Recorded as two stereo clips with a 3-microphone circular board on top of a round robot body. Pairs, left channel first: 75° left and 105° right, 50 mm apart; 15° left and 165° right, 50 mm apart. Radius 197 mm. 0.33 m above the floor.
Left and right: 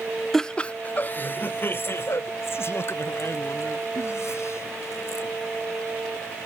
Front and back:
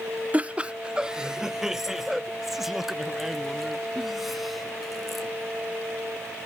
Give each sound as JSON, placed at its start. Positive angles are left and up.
{"t": 0.3, "sound": "laughter", "azimuth_deg": 155}